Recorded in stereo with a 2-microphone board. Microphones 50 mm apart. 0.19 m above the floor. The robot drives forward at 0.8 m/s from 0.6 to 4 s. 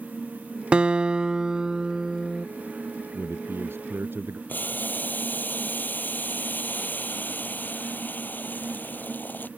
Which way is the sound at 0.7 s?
20° right (ahead or behind).